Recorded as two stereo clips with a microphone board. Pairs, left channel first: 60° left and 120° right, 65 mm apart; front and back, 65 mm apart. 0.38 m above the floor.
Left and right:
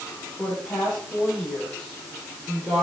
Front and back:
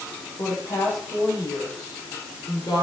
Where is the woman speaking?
15° right, 9 m; by 2.8 s 20° right, 7.5 m.